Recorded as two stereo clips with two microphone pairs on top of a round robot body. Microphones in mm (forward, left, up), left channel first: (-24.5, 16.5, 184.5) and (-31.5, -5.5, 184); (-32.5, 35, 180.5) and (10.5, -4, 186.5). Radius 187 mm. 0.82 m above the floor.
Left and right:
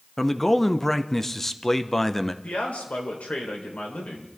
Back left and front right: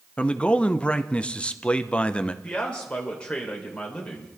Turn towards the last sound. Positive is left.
turn(degrees=65)